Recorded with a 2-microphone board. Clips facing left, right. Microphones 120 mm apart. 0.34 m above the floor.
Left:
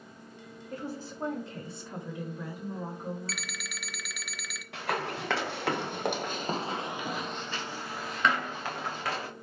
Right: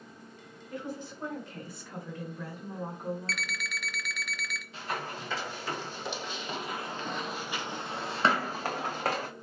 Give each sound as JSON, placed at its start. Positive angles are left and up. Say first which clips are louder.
{"t": 0.7, "sound": "a woman speaking", "louder": "even", "side_deg": 40, "distance_m": 2.0}
{"t": 3.3, "sound": "an alarm clock", "louder": "right 3 dB", "side_deg": 5, "distance_m": 0.5}
{"t": 4.7, "sound": "running footsteps", "louder": "left 5 dB", "side_deg": 80, "distance_m": 1.4}